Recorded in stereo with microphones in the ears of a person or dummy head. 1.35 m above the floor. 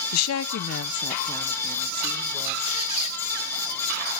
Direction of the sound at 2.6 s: 35° left (ahead or behind).